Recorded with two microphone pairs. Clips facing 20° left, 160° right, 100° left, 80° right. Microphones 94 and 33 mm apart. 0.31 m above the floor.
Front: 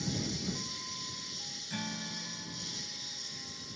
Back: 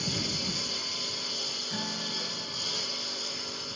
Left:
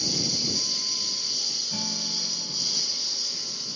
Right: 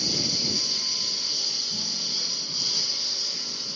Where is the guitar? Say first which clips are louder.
Back 2 dB, right 1 dB; 135° left.